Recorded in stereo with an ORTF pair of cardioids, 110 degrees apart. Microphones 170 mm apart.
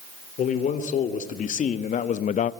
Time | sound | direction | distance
0.4 | a man speaking | 50° left | 3 m